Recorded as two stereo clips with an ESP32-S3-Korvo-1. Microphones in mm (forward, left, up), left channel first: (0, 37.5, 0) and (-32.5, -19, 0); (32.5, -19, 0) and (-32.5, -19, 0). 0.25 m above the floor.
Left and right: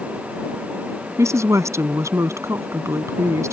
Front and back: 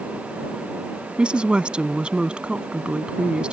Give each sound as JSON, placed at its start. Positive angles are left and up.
{"t": 1.2, "sound": "a woman speaking", "azimuth_deg": -110}